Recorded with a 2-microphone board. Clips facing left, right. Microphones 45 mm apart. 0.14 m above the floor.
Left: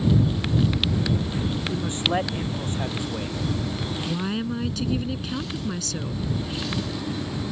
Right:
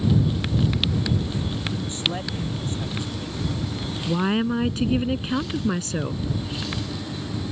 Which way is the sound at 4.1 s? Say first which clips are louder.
Right 7 dB; 30° right (ahead or behind).